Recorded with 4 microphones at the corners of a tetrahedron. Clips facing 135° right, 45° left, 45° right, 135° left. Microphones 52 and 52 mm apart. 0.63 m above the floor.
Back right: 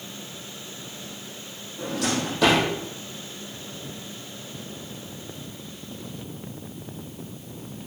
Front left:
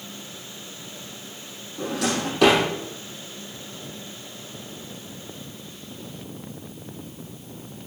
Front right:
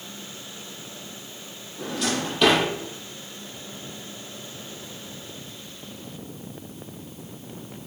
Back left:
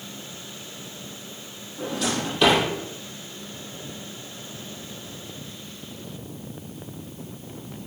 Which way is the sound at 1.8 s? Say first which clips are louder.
Front left 1 dB, even; 45° left.